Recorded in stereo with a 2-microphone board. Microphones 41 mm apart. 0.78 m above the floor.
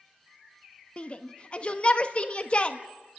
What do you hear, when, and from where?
1.0 s a shout: 35° left (ahead or behind), 1.2 m